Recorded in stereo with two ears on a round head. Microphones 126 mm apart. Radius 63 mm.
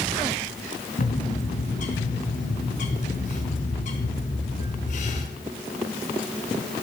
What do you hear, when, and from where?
1.0 s a bird: 60° left (ahead or behind), 4 m